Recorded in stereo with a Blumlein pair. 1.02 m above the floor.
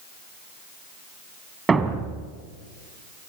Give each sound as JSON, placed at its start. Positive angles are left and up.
{"t": 1.7, "sound": "a thud", "azimuth_deg": -15, "distance_m": 2.5}